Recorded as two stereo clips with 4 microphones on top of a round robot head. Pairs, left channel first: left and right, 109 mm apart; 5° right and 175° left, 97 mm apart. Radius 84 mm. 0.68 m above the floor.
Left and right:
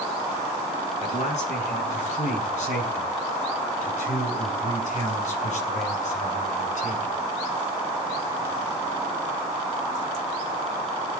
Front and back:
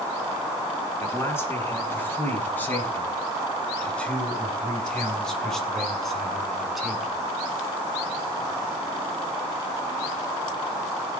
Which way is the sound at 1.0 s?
60° left.